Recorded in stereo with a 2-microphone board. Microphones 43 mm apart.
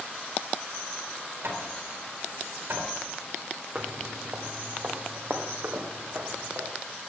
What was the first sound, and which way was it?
Hammering, 65° right (ahead or behind).